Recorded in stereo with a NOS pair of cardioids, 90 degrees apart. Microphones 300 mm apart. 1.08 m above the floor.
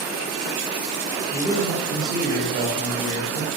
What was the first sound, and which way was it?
A man speaking, 5° right.